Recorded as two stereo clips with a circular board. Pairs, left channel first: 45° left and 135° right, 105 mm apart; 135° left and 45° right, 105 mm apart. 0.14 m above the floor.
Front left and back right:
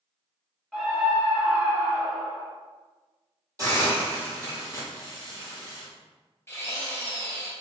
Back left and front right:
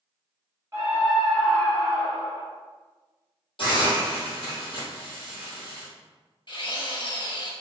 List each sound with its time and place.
0.7 s a scream: 55° right, 1.2 m; by 2.5 s 160° left, 1.6 m
3.6 s a hiss: 170° left, 2.0 m
6.5 s a drill: 105° left, 1.3 m